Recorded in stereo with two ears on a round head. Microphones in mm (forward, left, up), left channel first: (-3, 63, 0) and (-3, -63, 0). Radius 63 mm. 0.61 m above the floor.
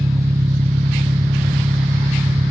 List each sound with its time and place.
0.0 s an engine running: 25° right (ahead or behind)